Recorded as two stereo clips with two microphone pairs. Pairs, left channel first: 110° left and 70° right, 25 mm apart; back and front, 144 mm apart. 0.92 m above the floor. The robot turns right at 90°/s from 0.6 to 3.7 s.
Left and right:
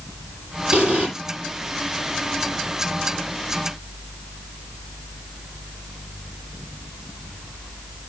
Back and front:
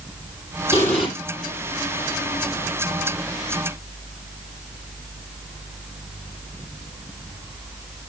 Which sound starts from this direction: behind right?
An explosion, at 0.7 s.